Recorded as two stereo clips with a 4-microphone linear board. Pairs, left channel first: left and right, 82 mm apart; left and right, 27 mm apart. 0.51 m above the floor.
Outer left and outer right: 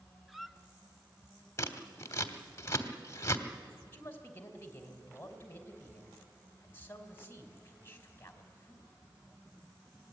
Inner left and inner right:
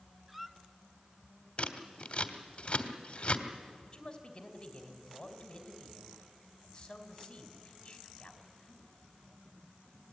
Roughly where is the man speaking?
Left.